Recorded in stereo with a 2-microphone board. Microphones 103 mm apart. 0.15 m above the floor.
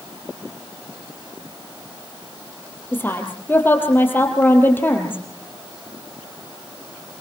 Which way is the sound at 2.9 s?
20° left (ahead or behind).